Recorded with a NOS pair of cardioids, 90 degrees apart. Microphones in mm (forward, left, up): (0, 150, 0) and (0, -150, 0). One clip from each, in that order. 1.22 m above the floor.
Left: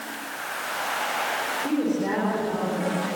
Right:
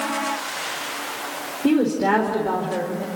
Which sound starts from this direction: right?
A woman speaking, at 1.6 s.